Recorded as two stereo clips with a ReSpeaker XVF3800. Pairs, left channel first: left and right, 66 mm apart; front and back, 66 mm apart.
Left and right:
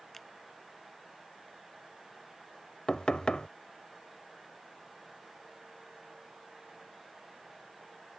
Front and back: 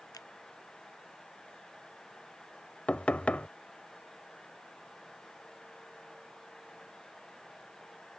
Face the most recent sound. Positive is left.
turn(degrees=35)